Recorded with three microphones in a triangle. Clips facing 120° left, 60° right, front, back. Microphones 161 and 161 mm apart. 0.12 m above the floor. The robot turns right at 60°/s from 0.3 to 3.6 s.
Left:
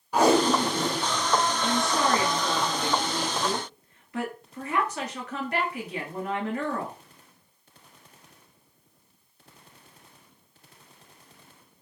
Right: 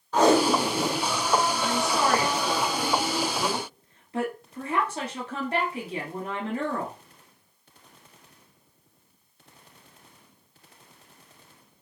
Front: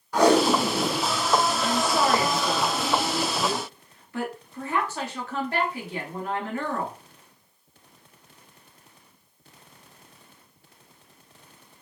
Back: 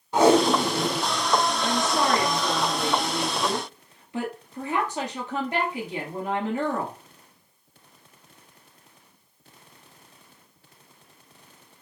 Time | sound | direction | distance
0.1 | tape being pulled | 175° right | 1.2 m
1.6 | a woman speaking | 125° left | 1.6 m